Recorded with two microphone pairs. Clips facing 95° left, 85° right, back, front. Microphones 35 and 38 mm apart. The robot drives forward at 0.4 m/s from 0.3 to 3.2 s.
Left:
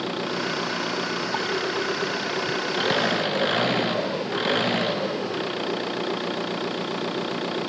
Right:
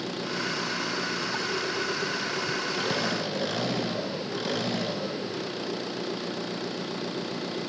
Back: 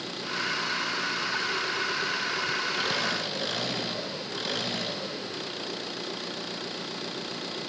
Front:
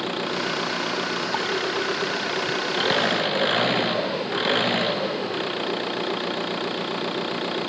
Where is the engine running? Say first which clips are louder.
Left 4 dB, front 6 dB; 45° left.